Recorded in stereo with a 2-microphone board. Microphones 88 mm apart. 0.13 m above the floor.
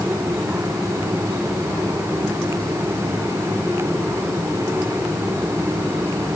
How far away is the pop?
No pop in this recording.